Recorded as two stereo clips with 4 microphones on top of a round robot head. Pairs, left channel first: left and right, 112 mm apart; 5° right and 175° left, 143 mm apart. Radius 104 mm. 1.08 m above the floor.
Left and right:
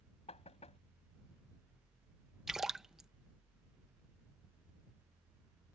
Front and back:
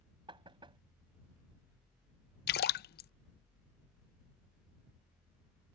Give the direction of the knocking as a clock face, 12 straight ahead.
8 o'clock.